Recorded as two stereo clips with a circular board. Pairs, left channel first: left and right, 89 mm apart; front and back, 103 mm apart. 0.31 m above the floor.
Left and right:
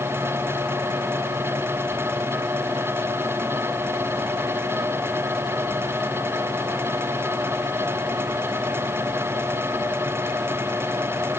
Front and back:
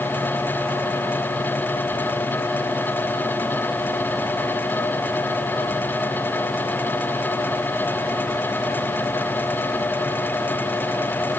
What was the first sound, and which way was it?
Only background noise.